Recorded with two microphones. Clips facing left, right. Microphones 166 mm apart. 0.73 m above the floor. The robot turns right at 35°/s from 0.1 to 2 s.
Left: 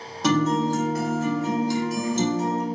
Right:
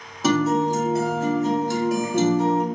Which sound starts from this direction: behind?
A guitar, at 0.2 s.